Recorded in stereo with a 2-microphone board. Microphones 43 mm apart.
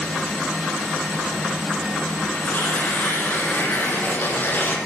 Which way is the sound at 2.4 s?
45° left (ahead or behind).